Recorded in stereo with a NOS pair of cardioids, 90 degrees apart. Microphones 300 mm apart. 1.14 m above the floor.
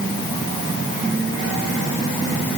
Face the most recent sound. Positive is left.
No sound to turn to.